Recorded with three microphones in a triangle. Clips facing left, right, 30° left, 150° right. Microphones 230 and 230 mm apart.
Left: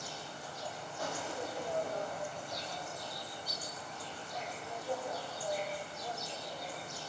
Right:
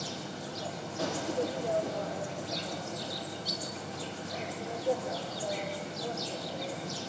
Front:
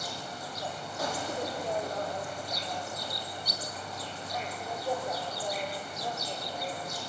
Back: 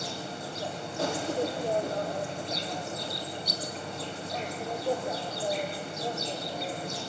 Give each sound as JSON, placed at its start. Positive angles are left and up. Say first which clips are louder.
{"t": 0.0, "sound": "an insect", "louder": "right 7 dB, back 4 dB", "azimuth_deg": -85, "distance_m": 3.0}